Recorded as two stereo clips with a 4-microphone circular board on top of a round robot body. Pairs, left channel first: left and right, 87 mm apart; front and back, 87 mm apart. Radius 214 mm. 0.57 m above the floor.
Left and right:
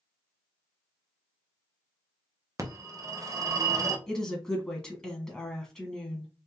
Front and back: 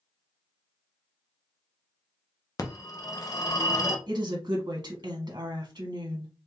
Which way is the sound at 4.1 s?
170° left.